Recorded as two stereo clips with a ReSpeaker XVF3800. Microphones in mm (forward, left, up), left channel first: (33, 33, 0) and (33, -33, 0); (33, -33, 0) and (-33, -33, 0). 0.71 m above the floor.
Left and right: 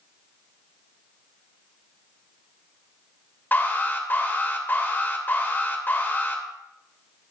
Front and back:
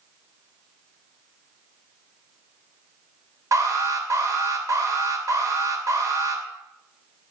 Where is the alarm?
150° left, 2.5 m.